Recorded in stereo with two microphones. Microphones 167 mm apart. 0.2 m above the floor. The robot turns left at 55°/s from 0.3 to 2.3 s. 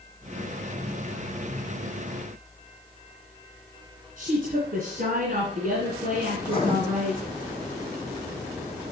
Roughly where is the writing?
Left.